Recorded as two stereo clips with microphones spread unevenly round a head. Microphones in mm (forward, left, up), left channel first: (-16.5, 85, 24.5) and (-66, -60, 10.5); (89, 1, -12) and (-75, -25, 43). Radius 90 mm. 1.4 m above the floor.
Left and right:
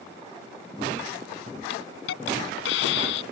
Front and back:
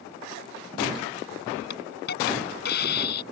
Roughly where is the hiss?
Ahead left.